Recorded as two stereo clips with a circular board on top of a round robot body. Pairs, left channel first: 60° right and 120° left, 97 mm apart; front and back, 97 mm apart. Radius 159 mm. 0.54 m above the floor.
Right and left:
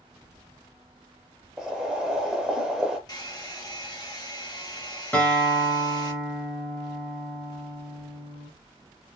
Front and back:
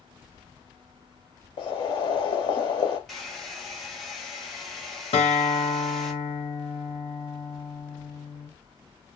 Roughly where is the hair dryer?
Right.